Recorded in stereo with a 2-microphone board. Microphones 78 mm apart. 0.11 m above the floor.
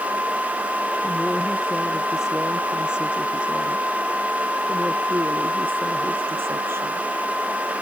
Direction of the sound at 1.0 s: 5° right (ahead or behind).